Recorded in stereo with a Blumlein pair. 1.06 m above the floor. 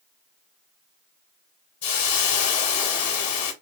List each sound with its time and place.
1.8 s a hiss: 55° left, 0.9 m